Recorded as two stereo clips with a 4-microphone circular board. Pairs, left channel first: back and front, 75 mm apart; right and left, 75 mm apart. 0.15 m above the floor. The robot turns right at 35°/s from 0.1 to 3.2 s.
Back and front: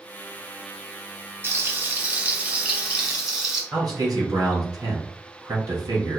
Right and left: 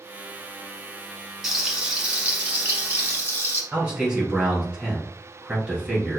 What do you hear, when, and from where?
1.4 s frying: 10° left, 1.2 m; by 3.6 s 75° left, 1.2 m
3.7 s a man speaking: 15° left, 2 m